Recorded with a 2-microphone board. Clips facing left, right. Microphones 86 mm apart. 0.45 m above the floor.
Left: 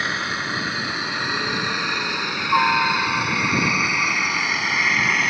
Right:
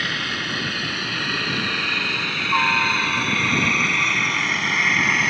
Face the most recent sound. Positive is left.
turn(degrees=0)  # may be behind; listen again after turning